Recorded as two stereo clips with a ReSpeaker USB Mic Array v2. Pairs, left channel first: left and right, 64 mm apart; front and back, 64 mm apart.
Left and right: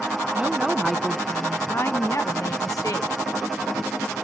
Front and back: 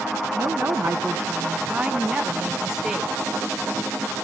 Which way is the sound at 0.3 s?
150° right.